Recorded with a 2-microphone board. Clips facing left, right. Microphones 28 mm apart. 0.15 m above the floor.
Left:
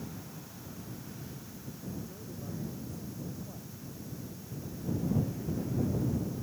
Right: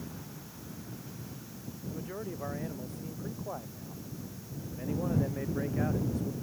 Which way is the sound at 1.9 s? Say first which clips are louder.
Right 6 dB; 50° right (ahead or behind).